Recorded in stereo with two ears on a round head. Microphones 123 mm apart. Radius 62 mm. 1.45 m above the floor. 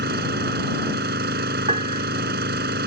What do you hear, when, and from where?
0.0 s an engine running: 85° right
1.7 s a piano: 50° right (ahead or behind)